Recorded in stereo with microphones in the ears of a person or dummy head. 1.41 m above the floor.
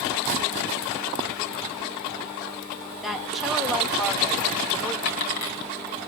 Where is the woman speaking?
Centre (ahead or behind), 2.5 m.